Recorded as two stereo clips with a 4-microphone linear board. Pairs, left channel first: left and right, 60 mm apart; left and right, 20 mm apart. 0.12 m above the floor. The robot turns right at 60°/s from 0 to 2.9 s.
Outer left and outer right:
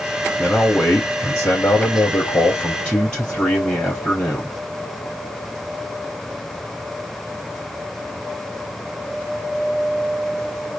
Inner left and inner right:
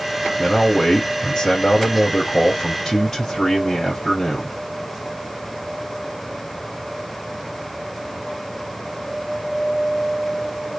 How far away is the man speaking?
About 2.5 m.